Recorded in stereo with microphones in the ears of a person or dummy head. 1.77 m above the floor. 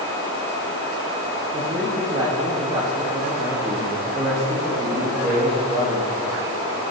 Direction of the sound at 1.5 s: 25° right (ahead or behind).